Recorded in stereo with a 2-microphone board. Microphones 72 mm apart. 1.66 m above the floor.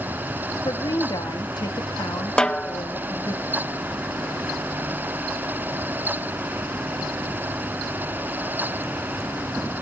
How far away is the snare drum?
About 0.6 m.